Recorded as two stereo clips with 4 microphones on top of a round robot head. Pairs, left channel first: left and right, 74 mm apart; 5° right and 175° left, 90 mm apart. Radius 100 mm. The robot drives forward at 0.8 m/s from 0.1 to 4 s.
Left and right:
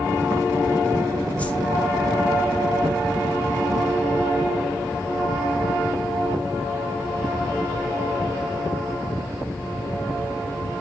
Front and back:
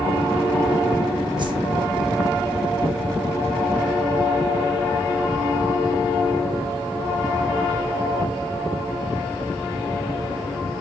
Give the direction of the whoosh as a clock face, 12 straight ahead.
7 o'clock.